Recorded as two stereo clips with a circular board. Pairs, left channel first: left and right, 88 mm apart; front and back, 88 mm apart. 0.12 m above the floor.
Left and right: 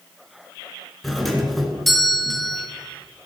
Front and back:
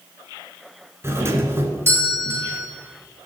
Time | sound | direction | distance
1.0 | a doorbell | straight behind | 1.7 m